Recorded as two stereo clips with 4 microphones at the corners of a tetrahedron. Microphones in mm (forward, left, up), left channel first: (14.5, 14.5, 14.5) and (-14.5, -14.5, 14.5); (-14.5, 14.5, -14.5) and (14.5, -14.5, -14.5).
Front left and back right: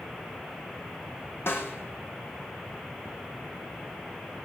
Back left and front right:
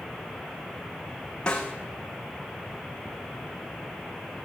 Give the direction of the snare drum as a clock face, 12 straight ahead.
10 o'clock.